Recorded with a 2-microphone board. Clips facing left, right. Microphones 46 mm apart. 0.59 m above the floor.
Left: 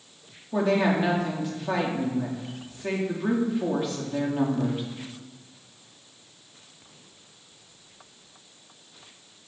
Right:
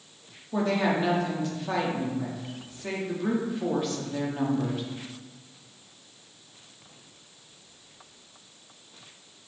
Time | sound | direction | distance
0.5 | a woman speaking | 10° left (ahead or behind) | 0.7 m